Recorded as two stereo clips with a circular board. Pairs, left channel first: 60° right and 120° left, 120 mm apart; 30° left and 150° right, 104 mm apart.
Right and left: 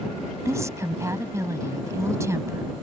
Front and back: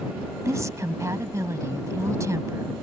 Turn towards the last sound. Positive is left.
turn(degrees=170)